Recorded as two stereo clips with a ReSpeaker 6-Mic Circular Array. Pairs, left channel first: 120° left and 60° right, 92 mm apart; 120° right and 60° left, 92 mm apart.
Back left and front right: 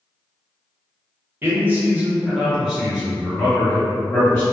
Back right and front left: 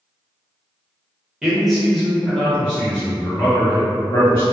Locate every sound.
1.4 s a man speaking: 20° right, 0.9 m; by 4.4 s 170° right, 1.4 m